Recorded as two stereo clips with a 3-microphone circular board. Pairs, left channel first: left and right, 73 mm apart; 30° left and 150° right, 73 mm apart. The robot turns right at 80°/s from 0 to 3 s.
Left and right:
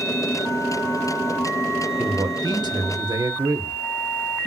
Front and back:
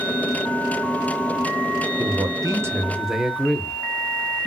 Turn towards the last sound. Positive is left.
turn(degrees=-65)